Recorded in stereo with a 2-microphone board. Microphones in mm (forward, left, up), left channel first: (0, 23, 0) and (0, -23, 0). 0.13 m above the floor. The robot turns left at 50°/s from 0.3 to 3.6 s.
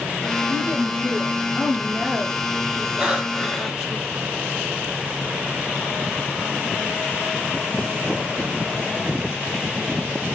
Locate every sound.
0.5 s a woman speaking: 95° right, 4.5 m; by 4.0 s 110° left, 4.5 m
3.0 s breathing: 155° right, 3 m; by 3.9 s 170° left, 3 m